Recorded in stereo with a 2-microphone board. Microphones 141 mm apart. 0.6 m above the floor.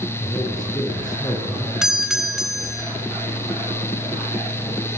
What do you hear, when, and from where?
0.2 s a man speaking: 30° left (ahead or behind), 7.5 m
1.8 s a doorbell: 5° right (ahead or behind), 3.5 m